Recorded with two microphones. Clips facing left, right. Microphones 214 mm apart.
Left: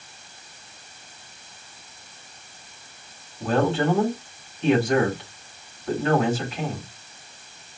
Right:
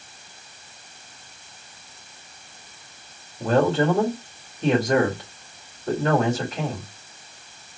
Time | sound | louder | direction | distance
3.4 | a man speaking | right 2 dB | 40° right (ahead or behind) | 2.5 m